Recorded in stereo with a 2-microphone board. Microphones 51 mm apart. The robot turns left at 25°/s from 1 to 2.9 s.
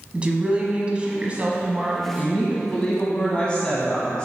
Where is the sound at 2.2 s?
30° left (ahead or behind), 1.1 m; by 4.2 s 25° left (ahead or behind), 1.1 m.